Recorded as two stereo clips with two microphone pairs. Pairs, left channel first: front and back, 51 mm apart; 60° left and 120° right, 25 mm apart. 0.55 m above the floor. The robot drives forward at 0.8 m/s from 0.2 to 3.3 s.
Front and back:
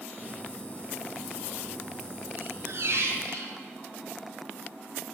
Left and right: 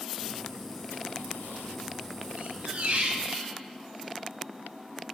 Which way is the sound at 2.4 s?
135° right.